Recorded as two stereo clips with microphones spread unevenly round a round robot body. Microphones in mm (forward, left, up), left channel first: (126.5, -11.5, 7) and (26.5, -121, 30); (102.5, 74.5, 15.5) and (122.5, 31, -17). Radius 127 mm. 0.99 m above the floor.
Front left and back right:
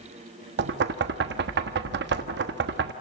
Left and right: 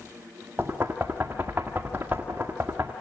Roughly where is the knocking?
Behind right.